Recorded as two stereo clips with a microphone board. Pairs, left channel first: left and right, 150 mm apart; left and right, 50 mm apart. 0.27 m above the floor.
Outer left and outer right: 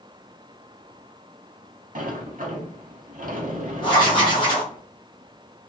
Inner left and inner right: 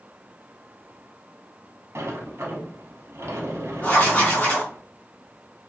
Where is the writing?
35° left (ahead or behind), 1.3 m.